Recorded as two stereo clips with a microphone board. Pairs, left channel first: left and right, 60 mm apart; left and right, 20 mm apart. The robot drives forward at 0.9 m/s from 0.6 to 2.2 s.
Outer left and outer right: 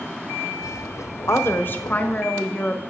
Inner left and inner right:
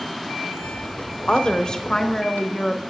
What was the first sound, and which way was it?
A woman speaking, 50° left (ahead or behind).